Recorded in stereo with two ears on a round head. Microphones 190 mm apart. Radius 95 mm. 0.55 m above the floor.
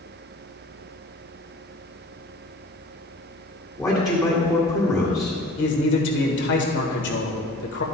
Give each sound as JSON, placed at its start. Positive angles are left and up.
{"t": 3.8, "sound": "a man speaking", "side_deg": 5, "distance_m": 1.9}
{"t": 5.6, "sound": "a man speaking", "side_deg": 60, "distance_m": 1.8}